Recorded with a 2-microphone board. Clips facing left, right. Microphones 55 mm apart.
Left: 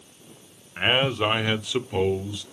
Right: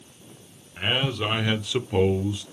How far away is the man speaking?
About 0.9 m.